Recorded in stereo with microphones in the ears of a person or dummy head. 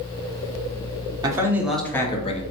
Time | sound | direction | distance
1.2 | a man speaking | 20° right (ahead or behind) | 0.8 m